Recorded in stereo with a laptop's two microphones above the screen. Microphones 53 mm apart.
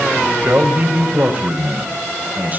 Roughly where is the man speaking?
Right.